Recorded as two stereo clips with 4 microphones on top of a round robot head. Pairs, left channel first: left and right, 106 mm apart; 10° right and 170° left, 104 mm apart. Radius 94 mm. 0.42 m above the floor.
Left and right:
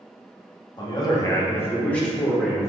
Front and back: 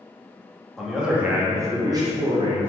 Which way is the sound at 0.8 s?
80° left.